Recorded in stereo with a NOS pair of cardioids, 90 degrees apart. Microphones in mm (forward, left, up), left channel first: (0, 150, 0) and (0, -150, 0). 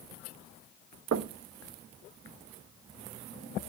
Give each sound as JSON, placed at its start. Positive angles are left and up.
{"t": 1.1, "sound": "knocking", "azimuth_deg": -55, "distance_m": 1.3}